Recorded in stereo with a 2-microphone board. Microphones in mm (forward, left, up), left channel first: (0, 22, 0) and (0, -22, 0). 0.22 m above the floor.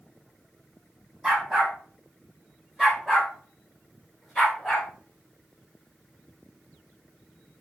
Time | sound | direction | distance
1.2 | a dog barking | 10° right (ahead or behind) | 5 m